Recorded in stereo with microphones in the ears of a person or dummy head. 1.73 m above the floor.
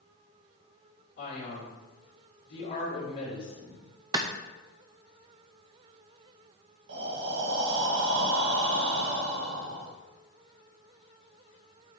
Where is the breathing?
65° right (ahead or behind), 1.8 m.